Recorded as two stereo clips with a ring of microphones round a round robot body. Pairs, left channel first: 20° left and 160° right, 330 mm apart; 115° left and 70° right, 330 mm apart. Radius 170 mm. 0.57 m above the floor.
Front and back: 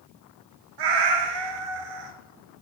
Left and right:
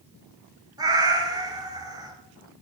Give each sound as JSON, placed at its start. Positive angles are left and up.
{"t": 0.8, "sound": "a cat meowing", "azimuth_deg": -145, "distance_m": 1.7}